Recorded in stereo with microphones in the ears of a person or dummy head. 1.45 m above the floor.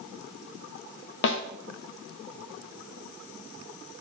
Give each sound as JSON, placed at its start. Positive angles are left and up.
{"t": 1.2, "sound": "a snare drum", "side_deg": 70, "distance_m": 1.6}